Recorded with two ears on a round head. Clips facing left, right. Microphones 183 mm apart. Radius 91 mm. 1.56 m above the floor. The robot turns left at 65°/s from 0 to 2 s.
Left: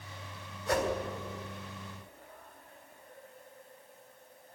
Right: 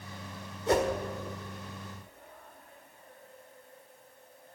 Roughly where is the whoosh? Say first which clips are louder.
Right 4 dB; centre.